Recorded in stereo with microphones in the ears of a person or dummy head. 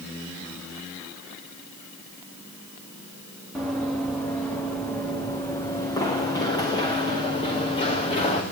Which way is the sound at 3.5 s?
Centre (ahead or behind).